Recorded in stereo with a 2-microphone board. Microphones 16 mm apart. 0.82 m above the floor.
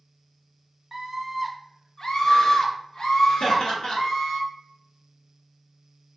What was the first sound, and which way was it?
A scream, 30° right (ahead or behind).